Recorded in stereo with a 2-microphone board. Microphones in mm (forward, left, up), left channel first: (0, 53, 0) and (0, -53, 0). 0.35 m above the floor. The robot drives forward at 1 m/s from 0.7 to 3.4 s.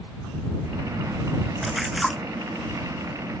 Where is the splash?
Centre (ahead or behind).